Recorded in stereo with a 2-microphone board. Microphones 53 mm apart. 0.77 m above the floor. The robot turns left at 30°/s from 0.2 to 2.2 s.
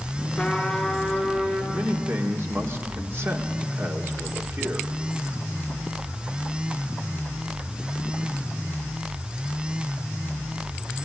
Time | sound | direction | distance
0.4 | a trumpet | 10° left | 4 m
1.7 | a man speaking | 40° right (ahead or behind) | 2 m